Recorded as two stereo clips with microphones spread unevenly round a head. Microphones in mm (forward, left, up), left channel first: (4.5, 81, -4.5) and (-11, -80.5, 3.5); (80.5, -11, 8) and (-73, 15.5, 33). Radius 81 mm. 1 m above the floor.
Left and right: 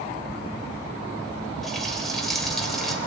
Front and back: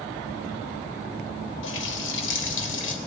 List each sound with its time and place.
1.6 s a running tap: 5° right, 3 m